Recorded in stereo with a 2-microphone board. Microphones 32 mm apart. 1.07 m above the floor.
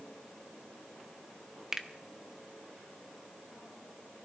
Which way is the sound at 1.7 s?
15° right (ahead or behind).